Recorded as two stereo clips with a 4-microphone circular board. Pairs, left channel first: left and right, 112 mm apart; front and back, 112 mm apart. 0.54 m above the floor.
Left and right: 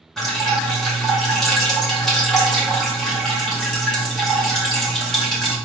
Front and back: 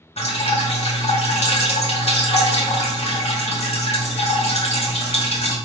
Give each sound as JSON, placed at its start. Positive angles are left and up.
{"t": 0.2, "sound": "dripping", "azimuth_deg": 5, "distance_m": 1.3}